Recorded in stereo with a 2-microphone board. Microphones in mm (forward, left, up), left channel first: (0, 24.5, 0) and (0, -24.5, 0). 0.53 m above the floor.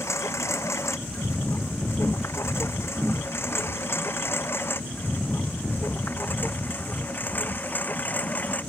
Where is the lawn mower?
75° left (ahead or behind); by 8.7 s 35° left (ahead or behind).